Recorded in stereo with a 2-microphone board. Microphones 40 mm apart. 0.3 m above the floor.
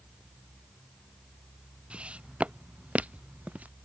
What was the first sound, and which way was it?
Footsteps, 30° right (ahead or behind).